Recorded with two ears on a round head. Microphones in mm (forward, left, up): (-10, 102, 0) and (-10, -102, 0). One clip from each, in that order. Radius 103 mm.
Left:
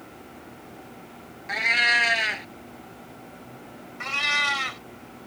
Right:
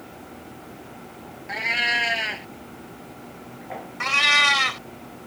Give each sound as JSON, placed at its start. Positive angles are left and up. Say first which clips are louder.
{"t": 1.5, "sound": "a cat meowing", "louder": "left 2 dB", "side_deg": 30}
{"t": 4.0, "sound": "a cat meowing", "louder": "right 6 dB", "side_deg": -15}